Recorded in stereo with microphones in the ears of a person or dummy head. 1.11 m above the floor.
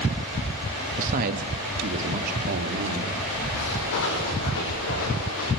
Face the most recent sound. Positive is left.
turn(degrees=60)  # may be behind; listen again after turning